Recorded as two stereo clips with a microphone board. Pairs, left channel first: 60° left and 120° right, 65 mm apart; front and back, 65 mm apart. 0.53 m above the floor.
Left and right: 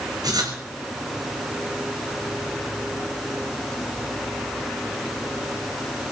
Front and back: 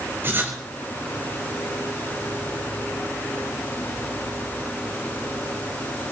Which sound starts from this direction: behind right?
Writing, at 0.2 s.